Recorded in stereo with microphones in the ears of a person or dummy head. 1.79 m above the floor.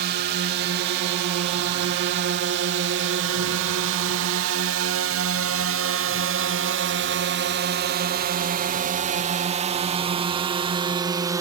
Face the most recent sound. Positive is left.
turn(degrees=-15)  # may be behind; listen again after turning